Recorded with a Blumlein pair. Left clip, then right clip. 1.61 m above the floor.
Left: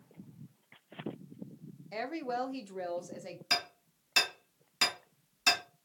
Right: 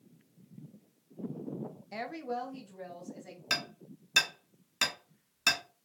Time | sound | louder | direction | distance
1.9 | a woman speaking | left 2 dB | 5° right | 0.7 m
3.5 | hammering | left 1 dB | 5° right | 1.7 m